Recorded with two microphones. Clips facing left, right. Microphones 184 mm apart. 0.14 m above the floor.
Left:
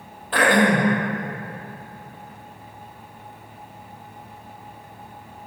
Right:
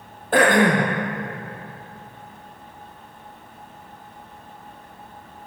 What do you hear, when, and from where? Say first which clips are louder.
0.3 s throat clearing: right 2 dB; 45° right (ahead or behind), 2 m